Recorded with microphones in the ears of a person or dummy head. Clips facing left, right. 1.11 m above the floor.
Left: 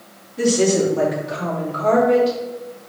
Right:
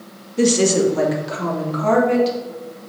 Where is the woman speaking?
40° right (ahead or behind), 1.2 m; by 2.4 s 70° right (ahead or behind), 2.5 m.